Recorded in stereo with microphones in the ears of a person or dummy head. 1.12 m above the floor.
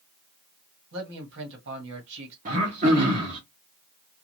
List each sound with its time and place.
0.9 s a man speaking: 65° right (ahead or behind), 1.7 m
2.5 s throat clearing: 40° right (ahead or behind), 1.1 m